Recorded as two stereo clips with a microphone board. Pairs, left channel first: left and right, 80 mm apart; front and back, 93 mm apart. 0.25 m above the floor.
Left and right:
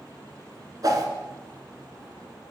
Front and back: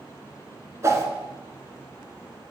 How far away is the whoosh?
About 0.9 m.